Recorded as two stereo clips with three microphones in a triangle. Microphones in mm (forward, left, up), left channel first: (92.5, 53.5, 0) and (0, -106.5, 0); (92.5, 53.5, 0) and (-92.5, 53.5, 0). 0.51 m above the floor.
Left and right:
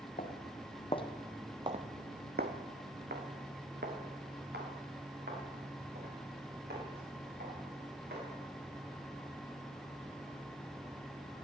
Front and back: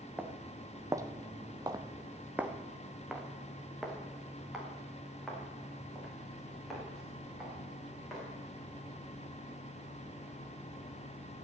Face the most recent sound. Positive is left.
turn(degrees=-90)